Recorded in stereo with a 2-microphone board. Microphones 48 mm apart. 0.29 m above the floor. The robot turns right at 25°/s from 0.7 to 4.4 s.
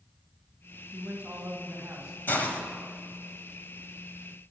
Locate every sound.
0.9 s a man speaking: 45° right, 1.8 m; by 2.2 s 15° right, 1.8 m
2.3 s a hiss: 45° left (ahead or behind), 1.4 m